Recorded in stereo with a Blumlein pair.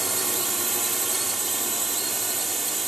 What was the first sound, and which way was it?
A drone, 10° right.